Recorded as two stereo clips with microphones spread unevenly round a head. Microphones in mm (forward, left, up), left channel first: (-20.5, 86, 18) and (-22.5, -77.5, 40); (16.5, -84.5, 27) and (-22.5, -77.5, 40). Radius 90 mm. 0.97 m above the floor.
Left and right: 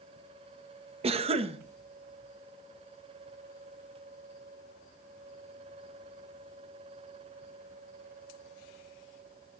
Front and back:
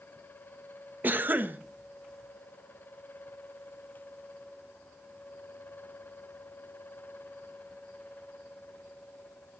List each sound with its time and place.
1.0 s a cough: 145° right, 1.2 m